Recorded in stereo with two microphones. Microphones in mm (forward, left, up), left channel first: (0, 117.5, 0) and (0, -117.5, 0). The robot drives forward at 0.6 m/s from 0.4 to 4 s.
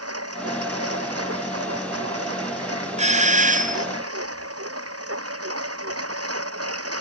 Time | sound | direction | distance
0.0 | a lawn mower | 85° right | ?
3.0 | a doorbell | 30° right (ahead or behind) | ?